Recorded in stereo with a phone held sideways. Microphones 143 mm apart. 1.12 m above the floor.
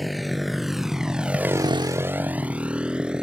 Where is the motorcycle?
Centre (ahead or behind); by 3.2 s 5° right (ahead or behind).